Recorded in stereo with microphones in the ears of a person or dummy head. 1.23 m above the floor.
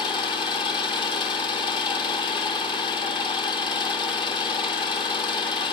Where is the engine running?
25° left (ahead or behind), 0.9 m.